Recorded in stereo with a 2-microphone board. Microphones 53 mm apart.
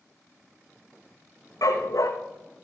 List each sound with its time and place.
1.6 s a dog barking: 85° left, 2.5 m